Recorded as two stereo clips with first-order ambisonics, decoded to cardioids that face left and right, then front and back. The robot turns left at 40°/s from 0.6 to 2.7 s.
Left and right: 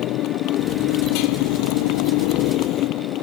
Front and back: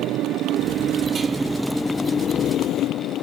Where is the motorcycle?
135° left; by 3.2 s 50° left.